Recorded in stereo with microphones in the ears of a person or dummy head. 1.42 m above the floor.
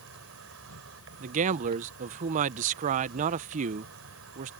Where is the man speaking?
35° right (ahead or behind).